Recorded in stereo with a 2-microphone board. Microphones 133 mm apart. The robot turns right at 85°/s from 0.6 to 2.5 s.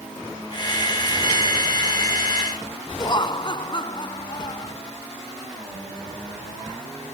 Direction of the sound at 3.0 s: 40° left (ahead or behind).